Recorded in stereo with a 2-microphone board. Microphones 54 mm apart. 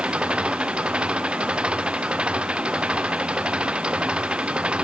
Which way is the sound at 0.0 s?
20° right (ahead or behind).